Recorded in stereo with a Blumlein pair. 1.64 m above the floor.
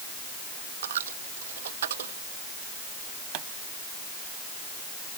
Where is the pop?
45° right.